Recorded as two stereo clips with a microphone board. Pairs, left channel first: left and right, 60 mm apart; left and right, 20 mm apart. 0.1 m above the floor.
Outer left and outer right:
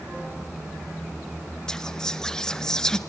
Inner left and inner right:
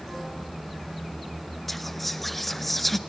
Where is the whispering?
10° left (ahead or behind), 1.2 m.